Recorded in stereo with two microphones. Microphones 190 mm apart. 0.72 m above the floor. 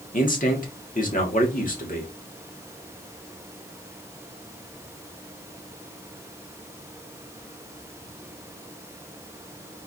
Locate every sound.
0.1 s a man speaking: 45° left (ahead or behind), 1.6 m